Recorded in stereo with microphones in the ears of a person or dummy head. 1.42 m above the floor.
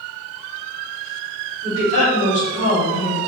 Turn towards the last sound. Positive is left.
turn(degrees=25)  # may be behind; listen again after turning